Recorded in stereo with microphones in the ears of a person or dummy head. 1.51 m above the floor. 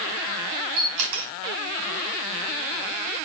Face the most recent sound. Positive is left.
turn(degrees=-80)